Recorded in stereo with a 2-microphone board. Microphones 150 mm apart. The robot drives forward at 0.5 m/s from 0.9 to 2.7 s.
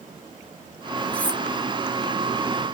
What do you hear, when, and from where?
1.1 s cutlery clinking: 10° left (ahead or behind), 1.1 m